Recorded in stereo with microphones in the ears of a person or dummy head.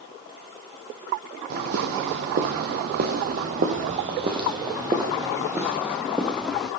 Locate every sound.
1.5 s footsteps: 50° right (ahead or behind), 2.5 m; by 6.7 s centre (ahead or behind), 3 m